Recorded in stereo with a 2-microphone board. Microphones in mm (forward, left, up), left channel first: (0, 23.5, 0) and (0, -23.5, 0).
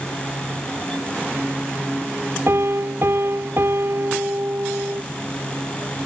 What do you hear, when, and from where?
2.5 s a piano: 55° right (ahead or behind)